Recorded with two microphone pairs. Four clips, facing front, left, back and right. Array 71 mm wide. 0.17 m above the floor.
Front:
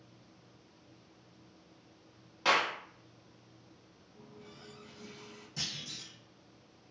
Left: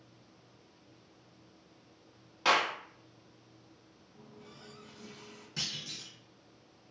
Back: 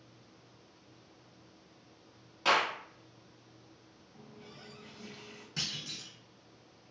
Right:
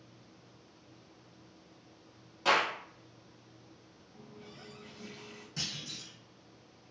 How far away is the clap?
About 1.0 m.